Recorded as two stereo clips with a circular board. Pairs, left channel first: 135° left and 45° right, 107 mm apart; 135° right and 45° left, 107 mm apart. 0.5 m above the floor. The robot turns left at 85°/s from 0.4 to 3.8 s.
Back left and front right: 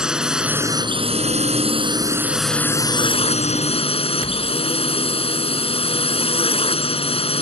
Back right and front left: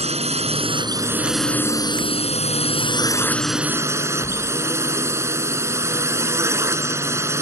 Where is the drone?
40° left; by 7.4 s 110° left.